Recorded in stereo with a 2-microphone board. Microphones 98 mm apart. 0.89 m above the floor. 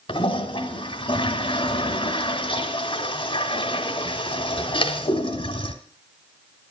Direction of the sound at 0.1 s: 60° left (ahead or behind).